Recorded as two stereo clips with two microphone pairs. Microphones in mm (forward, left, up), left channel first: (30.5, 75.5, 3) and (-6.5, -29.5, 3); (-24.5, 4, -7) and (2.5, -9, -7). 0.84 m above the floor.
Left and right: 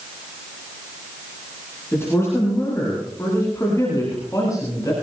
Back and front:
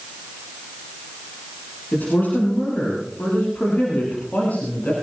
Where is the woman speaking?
140° left, 9 m; by 4.9 s 130° left, 7.5 m.